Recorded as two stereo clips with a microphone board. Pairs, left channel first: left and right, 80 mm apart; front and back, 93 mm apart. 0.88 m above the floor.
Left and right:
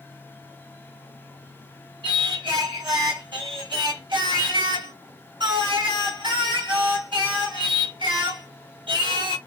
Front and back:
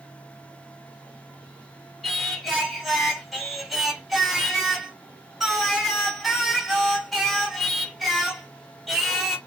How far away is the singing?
About 2.5 m.